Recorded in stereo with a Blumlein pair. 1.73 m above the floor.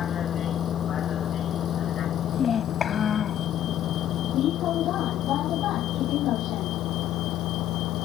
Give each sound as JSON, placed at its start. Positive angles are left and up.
{"t": 0.0, "sound": "a vehicle", "azimuth_deg": 25}
{"t": 2.3, "sound": "a child speaking", "azimuth_deg": 20}